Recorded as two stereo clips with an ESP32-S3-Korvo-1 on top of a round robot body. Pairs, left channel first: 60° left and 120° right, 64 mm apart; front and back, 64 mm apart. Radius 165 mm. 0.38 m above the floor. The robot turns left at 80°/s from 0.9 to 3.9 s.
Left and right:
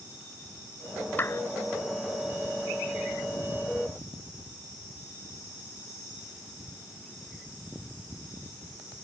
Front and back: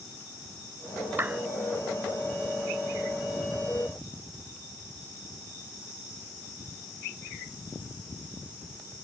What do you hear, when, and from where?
1.2 s a clap: 120° left; by 1.4 s 100° left